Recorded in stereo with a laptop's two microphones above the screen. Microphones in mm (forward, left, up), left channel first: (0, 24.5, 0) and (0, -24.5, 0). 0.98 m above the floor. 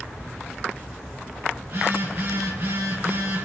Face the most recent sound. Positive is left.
turn(degrees=-80)